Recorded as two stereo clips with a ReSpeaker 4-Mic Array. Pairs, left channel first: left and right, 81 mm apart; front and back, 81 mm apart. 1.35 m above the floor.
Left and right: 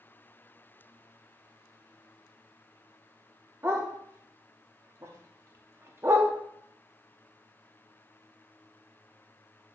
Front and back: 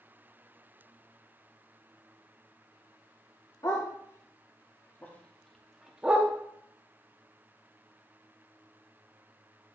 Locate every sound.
3.6 s a dog barking: 35° right, 1.4 m; by 6.3 s 125° right, 0.9 m